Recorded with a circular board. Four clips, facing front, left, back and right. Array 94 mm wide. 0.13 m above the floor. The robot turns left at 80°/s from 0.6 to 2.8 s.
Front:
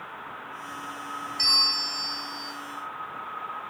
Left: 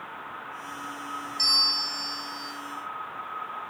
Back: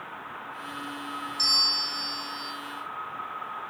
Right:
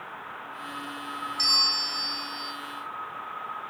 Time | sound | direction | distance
1.4 | a bell | straight ahead | 1.1 m